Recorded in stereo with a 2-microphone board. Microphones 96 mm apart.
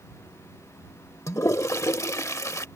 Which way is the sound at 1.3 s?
30° left (ahead or behind).